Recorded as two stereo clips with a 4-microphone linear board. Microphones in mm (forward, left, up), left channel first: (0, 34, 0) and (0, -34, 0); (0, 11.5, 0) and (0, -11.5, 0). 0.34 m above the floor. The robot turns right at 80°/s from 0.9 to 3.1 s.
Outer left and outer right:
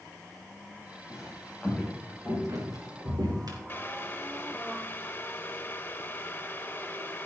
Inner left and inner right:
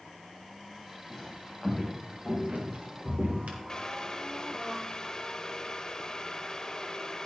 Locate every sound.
1.1 s footsteps: 45° left (ahead or behind), 7 m; by 3.6 s 85° right, 3.5 m
3.7 s boiling: 30° left (ahead or behind), 1.0 m